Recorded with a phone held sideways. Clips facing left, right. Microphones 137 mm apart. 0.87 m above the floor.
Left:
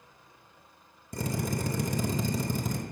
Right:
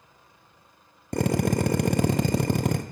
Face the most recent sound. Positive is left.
turn(degrees=-75)  # may be behind; listen again after turning